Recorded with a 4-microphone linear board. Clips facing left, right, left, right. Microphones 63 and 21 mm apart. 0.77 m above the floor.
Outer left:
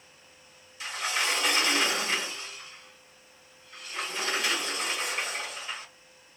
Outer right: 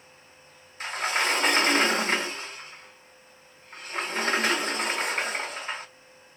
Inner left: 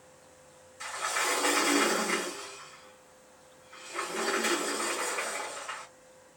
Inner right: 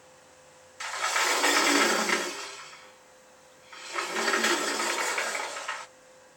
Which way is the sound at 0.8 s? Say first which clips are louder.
Outer right 4 dB, inner right 4 dB; 45° right (ahead or behind).